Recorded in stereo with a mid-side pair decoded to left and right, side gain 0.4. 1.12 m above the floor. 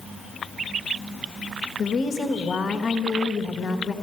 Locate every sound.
1.8 s a woman speaking: 65° left, 1.2 m